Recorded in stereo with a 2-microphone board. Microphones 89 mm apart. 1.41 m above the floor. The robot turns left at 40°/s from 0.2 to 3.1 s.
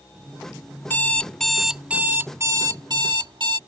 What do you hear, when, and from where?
0.8 s an alarm clock: 30° left; by 3.6 s 65° right